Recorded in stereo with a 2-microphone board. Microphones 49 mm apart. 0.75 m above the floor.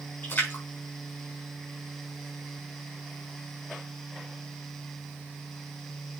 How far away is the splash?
About 5 m.